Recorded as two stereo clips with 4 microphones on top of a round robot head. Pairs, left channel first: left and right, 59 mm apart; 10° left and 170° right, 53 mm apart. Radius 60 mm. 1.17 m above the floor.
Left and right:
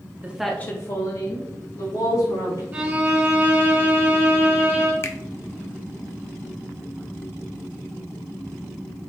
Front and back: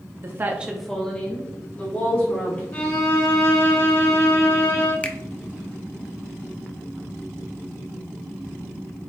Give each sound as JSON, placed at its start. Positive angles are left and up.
{"t": 0.2, "sound": "a woman speaking", "azimuth_deg": -145, "distance_m": 0.7}
{"t": 2.7, "sound": "a violin", "azimuth_deg": -30, "distance_m": 1.9}
{"t": 5.0, "sound": "a finger snap", "azimuth_deg": 65, "distance_m": 0.7}